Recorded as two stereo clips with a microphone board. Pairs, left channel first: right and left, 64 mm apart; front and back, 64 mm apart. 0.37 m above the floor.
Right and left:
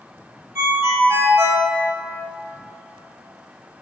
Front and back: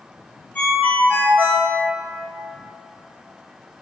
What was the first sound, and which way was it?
A ringtone, 60° left.